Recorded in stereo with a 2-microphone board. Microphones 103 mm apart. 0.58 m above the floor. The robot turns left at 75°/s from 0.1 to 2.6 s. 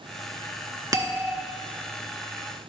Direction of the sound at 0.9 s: 135° right.